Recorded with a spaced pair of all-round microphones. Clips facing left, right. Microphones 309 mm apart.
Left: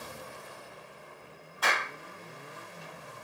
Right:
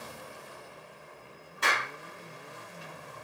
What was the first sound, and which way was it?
A clap, 30° right (ahead or behind).